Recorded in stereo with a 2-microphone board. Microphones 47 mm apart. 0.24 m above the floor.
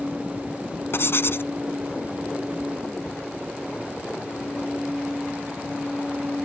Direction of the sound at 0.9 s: 60° left (ahead or behind).